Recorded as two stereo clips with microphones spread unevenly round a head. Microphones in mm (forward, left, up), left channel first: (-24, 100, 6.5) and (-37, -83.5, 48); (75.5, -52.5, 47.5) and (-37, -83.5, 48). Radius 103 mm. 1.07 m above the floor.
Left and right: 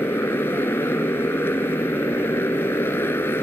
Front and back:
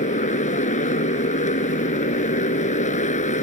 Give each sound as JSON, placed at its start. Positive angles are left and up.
{"t": 0.0, "sound": "a motorcycle", "azimuth_deg": 5}